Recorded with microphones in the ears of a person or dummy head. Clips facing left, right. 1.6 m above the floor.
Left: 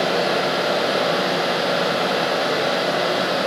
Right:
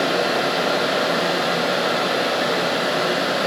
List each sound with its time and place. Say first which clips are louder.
0.0 s a fan: even; centre (ahead or behind), 1.5 m